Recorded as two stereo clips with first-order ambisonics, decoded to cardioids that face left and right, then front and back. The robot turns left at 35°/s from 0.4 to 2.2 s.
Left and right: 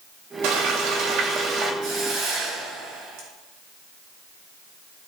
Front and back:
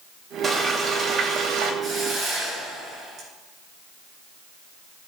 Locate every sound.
0.4 s frying: 90° right, 2.5 m; by 1.7 s 135° right, 2.5 m
1.8 s a hiss: 105° right, 5.5 m; by 3.3 s 120° right, 5.5 m